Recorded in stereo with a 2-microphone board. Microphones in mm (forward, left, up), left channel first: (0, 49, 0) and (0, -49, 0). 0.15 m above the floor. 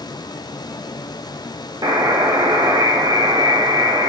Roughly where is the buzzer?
Right.